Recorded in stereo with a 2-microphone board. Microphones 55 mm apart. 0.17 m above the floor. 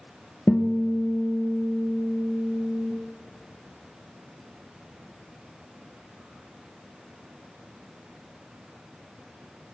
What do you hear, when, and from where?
0.5 s a guitar: 30° left (ahead or behind), 0.7 m